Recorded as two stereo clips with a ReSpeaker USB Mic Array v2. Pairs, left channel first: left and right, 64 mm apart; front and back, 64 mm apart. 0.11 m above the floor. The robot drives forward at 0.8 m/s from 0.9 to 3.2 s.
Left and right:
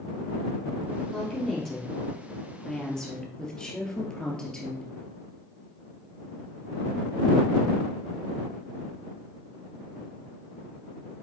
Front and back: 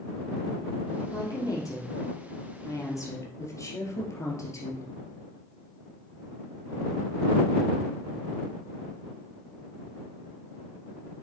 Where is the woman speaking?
10° left, 4 m; by 4.8 s 15° left, 2.5 m.